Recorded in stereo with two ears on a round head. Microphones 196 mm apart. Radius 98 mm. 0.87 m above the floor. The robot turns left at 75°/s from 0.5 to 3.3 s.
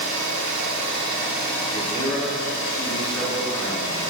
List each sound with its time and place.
0.0 s an engine running: 110° right, 1.1 m; by 4.1 s 40° left, 1.1 m
1.7 s a man speaking: 130° left, 1.3 m; by 3.9 s 10° left, 1.3 m